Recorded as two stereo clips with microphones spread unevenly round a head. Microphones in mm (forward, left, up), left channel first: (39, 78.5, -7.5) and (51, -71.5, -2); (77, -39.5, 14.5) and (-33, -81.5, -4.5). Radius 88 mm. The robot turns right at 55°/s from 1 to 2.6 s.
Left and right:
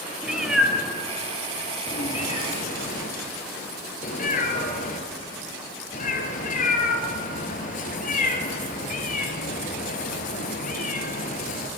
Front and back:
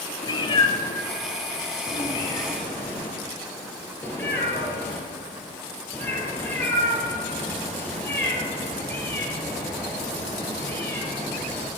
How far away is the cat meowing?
About 2 m.